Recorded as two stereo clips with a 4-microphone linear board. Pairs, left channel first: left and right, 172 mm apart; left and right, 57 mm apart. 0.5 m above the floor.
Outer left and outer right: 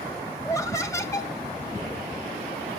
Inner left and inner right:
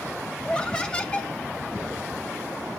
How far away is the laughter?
About 0.6 m.